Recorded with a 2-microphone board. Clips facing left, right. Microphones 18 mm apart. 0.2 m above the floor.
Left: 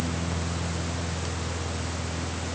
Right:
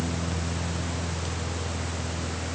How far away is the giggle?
No giggle in this recording.